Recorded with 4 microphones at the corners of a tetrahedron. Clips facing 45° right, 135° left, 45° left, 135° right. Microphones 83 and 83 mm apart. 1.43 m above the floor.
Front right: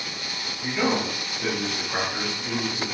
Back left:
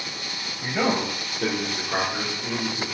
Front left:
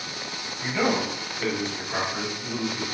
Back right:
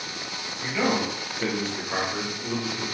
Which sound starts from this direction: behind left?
A man speaking, at 0.6 s.